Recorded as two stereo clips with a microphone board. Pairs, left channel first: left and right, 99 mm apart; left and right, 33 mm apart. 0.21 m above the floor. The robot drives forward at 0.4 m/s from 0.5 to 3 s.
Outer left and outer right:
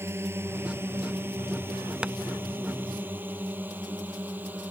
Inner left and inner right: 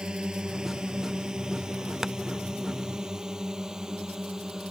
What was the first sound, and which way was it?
A drone, 25° right (ahead or behind).